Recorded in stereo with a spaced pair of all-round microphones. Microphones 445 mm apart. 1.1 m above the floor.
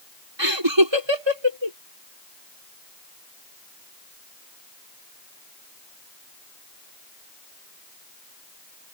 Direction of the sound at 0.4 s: 75° right (ahead or behind).